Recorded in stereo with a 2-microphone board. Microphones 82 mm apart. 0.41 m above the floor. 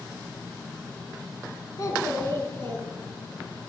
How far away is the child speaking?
About 2.5 m.